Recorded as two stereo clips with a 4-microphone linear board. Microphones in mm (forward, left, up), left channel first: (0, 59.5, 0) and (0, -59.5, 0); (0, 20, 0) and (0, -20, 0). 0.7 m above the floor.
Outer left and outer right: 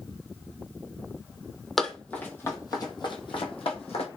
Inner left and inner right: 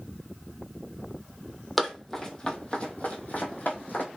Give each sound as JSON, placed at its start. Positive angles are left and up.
{"t": 1.8, "sound": "running footsteps", "side_deg": 5, "distance_m": 0.9}